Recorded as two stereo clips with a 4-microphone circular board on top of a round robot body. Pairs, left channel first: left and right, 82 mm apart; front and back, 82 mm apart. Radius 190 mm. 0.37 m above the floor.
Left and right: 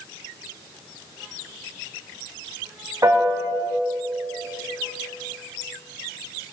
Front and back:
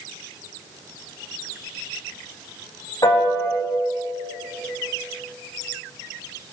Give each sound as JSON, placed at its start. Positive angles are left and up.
{"t": 3.0, "sound": "a piano", "azimuth_deg": -40, "distance_m": 4.5}